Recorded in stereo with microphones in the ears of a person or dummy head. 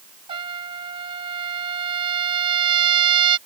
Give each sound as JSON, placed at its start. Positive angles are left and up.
{"t": 0.3, "sound": "a trumpet", "side_deg": -30}